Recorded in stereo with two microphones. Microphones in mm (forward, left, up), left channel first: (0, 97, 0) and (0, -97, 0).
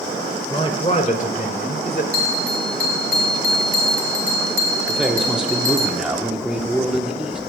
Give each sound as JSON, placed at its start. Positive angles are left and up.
{"t": 0.5, "sound": "a man speaking", "side_deg": 25, "distance_m": 1.6}
{"t": 2.1, "sound": "a bell", "side_deg": -50, "distance_m": 1.3}
{"t": 4.9, "sound": "a man speaking", "side_deg": -5, "distance_m": 1.3}